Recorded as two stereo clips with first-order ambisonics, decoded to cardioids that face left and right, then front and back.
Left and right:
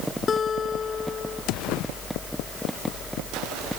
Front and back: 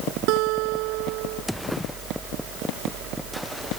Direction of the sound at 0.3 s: 160° left.